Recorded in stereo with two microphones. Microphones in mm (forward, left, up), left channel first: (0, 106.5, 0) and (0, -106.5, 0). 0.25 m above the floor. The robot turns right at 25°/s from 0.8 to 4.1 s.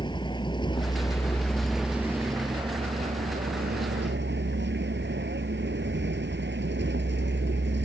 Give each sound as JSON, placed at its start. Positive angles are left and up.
{"t": 0.0, "sound": "a vehicle", "azimuth_deg": 155}